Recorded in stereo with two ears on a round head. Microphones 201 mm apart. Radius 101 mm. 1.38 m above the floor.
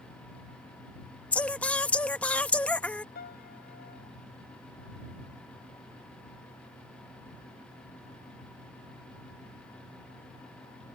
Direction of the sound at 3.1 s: 45° left (ahead or behind).